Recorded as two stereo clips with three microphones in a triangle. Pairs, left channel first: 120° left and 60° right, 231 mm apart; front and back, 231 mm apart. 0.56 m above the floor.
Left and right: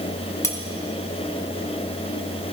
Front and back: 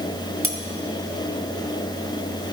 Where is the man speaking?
No man speaking in this recording.